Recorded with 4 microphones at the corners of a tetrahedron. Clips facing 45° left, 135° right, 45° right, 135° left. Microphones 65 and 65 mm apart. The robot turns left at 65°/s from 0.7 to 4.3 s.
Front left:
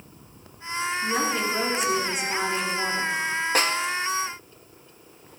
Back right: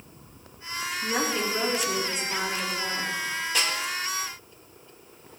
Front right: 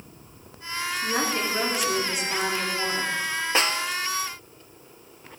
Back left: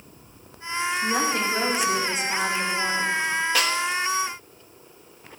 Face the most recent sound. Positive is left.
turn(degrees=-40)